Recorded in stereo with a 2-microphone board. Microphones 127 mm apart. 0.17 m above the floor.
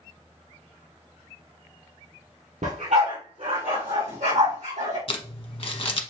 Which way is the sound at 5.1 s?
45° left (ahead or behind).